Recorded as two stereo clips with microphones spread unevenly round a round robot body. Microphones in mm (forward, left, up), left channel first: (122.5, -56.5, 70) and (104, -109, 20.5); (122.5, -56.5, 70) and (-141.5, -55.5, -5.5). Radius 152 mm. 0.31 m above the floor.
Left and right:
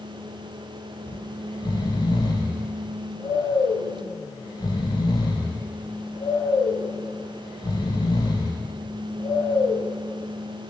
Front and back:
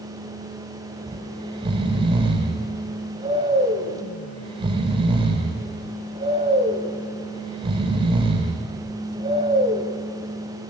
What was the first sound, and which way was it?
Snoring, 120° left.